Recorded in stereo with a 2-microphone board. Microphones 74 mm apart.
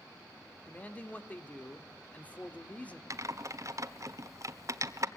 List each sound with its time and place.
0.7 s a man speaking: 20° left (ahead or behind), 1.9 m
3.1 s typing on a keyboard: 45° right (ahead or behind), 1.2 m